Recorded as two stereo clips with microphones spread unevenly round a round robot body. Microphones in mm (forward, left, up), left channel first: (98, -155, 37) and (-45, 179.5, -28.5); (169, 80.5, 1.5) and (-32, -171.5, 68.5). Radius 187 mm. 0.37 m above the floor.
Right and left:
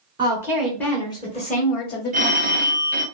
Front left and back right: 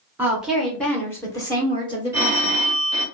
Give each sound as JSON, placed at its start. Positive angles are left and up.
{"t": 0.2, "sound": "a woman speaking", "azimuth_deg": 125, "distance_m": 0.9}
{"t": 2.1, "sound": "a phone ringing", "azimuth_deg": 135, "distance_m": 0.6}